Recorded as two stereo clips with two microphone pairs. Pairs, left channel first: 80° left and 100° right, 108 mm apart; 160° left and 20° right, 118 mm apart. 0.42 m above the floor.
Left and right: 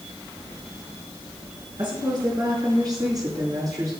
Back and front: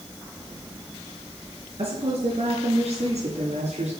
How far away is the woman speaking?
About 4.5 m.